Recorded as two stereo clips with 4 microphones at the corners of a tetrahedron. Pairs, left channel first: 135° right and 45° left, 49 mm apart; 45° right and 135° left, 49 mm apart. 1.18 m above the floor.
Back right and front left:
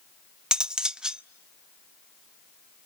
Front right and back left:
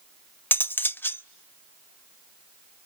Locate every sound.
0.5 s cutlery clinking: 20° right, 0.7 m